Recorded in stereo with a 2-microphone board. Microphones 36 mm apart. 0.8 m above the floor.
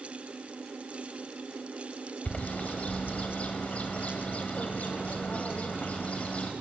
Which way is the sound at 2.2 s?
40° left (ahead or behind).